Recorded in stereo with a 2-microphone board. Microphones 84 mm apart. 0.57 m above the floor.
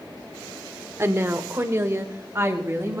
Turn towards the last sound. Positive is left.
turn(degrees=-30)  # may be behind; listen again after turning